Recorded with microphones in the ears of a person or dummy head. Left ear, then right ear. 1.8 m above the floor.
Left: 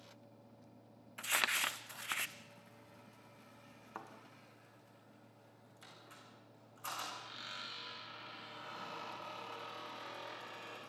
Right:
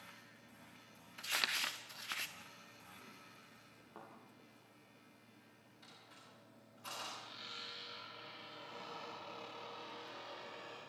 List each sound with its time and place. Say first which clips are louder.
1.2 s crumpling: left 3 dB; 20° left (ahead or behind), 0.9 m
4.0 s a thud: left 6 dB; 50° left (ahead or behind), 3 m
5.8 s a squeak: left 2 dB; 45° left (ahead or behind), 8.5 m